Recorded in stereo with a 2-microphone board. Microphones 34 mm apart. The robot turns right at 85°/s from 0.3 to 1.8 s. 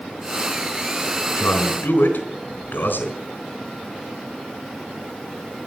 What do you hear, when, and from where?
1.4 s a man speaking: 65° left, 3.5 m; by 3.1 s 100° left, 3.5 m